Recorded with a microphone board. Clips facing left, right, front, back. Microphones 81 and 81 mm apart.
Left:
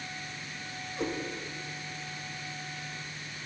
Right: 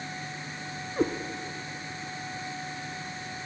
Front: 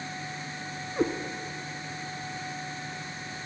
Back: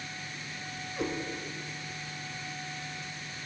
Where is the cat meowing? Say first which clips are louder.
Right 7 dB, front 7 dB; 50° right, 0.9 m.